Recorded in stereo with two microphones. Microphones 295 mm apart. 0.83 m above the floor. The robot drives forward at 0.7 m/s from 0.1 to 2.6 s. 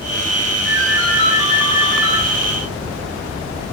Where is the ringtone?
45° right (ahead or behind), 1.8 m; by 2.2 s 75° right (ahead or behind), 1.3 m.